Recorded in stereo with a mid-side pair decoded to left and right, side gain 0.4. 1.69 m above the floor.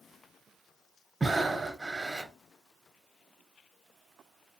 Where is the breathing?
20° right, 0.7 m.